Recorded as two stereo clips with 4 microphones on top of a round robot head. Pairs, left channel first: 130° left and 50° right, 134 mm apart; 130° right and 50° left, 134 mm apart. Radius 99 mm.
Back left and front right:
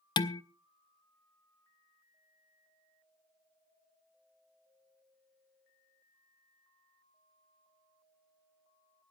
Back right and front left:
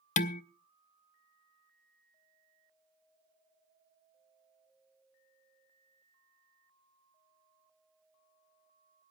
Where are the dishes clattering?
170° right, 0.6 m.